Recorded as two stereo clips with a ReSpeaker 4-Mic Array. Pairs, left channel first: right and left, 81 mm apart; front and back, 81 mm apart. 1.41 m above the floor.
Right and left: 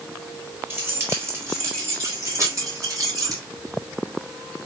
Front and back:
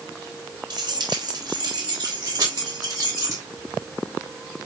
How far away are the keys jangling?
About 4 m.